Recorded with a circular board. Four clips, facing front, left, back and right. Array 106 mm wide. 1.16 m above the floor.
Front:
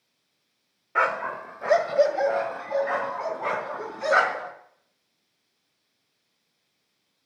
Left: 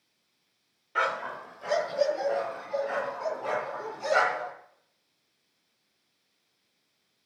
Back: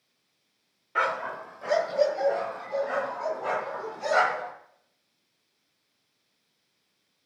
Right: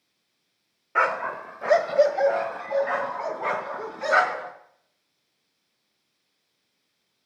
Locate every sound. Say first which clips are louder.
0.9 s a dog barking: right 5 dB, front 3 dB; 65° right, 0.9 m; by 4.5 s 55° right, 4 m